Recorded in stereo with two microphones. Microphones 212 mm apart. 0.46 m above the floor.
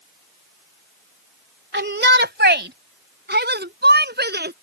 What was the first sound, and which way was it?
A shout, 55° right (ahead or behind).